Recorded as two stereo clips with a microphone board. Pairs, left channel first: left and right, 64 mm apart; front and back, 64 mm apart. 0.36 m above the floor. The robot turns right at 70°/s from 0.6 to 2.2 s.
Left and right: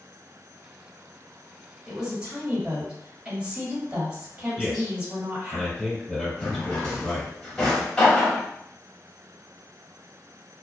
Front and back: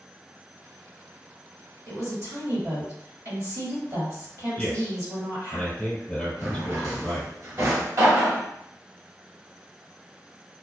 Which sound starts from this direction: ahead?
A man speaking, at 4.6 s.